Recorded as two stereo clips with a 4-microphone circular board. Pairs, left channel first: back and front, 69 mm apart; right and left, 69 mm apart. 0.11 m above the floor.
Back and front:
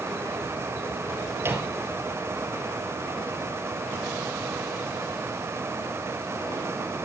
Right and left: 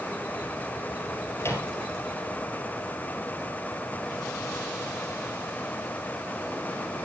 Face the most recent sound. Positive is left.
turn(degrees=-45)